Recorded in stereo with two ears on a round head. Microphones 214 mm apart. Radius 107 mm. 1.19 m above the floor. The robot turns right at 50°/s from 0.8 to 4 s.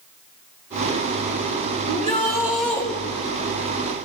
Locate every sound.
1.9 s a shout: 35° right, 5 m; by 2.9 s 15° left, 5 m